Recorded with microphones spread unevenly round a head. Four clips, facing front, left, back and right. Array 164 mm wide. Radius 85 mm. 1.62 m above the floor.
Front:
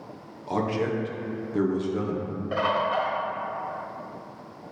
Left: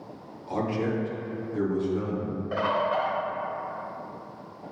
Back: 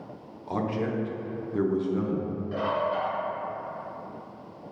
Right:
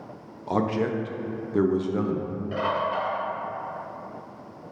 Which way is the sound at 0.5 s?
70° right.